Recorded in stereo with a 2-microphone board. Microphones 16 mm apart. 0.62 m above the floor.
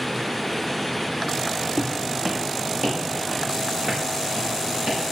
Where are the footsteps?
50° right (ahead or behind), 2 m; by 5.1 s 80° right, 7 m.